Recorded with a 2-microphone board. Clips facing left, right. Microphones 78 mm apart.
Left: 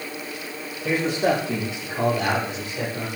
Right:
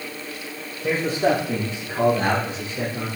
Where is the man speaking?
30° right (ahead or behind), 6.5 m; by 3.1 s 15° right (ahead or behind), 5.5 m.